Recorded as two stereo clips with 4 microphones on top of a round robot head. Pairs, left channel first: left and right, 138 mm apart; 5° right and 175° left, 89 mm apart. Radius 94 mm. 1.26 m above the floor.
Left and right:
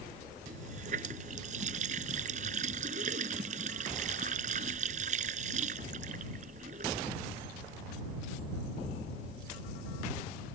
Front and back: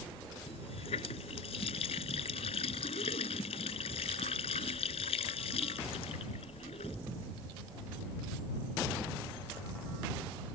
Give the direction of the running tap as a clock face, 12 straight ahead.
1 o'clock.